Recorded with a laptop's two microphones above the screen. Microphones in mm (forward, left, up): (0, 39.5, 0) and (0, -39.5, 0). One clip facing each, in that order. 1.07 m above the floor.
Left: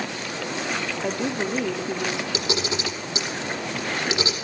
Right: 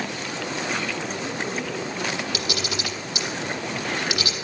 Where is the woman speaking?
75° left (ahead or behind), 5 m.